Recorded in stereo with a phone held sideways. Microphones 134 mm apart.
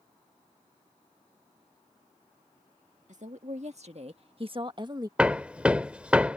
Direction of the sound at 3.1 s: 60° right (ahead or behind).